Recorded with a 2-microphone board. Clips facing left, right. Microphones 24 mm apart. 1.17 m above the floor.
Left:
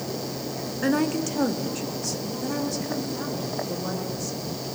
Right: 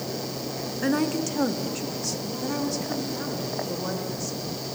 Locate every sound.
0.8 s a woman speaking: 5° left (ahead or behind), 1.6 m; by 4.4 s 10° right (ahead or behind), 5.5 m